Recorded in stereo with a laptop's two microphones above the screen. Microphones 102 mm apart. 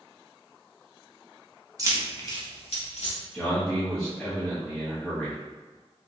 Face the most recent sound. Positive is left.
turn(degrees=10)  # may be behind; listen again after turning